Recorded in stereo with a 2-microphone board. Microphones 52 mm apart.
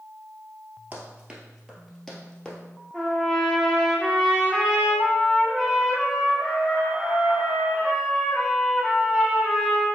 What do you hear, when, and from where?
0.9 s running footsteps: 30° right (ahead or behind), 1.2 m; by 2.6 s 20° left (ahead or behind), 1.4 m
2.9 s a trumpet: 5° left (ahead or behind), 1.1 m